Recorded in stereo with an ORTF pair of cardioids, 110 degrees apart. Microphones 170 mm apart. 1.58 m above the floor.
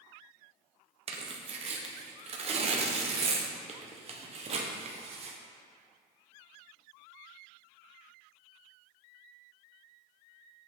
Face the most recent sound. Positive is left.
turn(degrees=-40)